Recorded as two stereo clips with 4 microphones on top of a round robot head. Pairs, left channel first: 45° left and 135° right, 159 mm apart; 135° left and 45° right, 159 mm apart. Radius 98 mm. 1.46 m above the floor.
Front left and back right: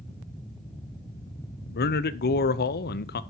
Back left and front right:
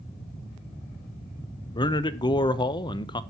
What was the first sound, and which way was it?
A man speaking, 70° left.